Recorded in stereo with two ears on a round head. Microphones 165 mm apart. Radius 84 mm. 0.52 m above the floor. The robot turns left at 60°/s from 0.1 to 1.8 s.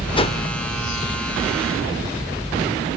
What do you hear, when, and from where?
0.1 s a whoosh: 30° left (ahead or behind), 0.9 m; by 0.4 s 40° left (ahead or behind), 0.9 m